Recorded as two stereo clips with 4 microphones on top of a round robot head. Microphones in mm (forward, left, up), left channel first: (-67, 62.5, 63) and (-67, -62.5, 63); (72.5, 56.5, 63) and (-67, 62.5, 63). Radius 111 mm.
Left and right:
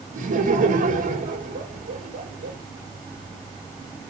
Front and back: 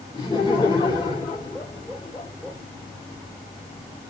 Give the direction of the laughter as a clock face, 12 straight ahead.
2 o'clock.